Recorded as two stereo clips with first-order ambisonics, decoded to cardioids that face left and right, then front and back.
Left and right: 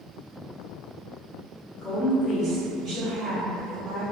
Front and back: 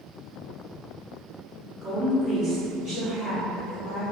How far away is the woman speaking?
About 0.7 m.